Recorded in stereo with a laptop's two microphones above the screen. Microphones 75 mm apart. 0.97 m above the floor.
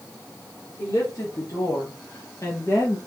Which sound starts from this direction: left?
A woman speaking, at 0.8 s.